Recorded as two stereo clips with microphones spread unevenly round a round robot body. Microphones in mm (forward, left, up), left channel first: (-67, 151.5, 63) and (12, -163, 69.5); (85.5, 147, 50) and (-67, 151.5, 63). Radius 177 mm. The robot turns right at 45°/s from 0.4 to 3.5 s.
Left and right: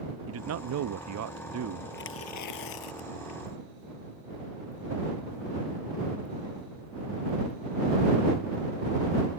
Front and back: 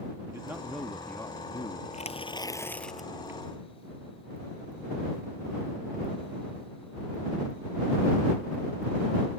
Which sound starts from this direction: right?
A man speaking, at 0.3 s.